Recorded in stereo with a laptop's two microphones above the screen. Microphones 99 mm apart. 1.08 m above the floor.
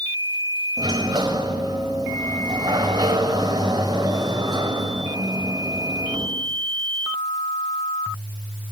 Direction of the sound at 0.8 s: 45° right (ahead or behind).